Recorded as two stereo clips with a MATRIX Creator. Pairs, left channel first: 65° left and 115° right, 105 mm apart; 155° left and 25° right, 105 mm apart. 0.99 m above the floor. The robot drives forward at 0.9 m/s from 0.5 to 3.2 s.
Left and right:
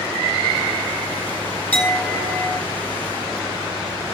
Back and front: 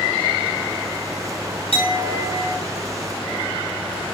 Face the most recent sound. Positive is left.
turn(degrees=155)